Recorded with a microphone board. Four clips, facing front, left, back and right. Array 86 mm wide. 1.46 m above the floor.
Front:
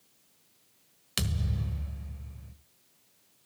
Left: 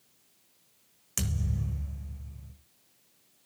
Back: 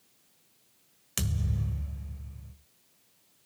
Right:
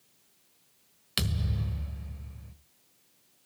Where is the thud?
70° right, 1.3 m.